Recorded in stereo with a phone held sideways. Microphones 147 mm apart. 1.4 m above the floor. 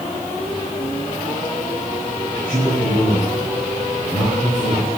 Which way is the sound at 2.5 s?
35° right (ahead or behind).